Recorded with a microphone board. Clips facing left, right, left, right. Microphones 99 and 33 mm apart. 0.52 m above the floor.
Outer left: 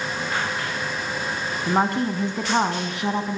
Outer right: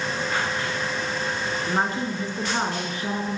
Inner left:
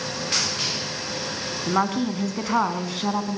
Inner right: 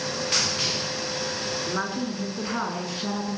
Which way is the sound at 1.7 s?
70° left (ahead or behind).